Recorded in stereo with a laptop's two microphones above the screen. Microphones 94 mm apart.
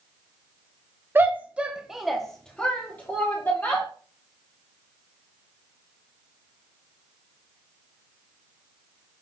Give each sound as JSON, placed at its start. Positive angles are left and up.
{"t": 1.1, "sound": "a shout", "side_deg": -20, "distance_m": 0.7}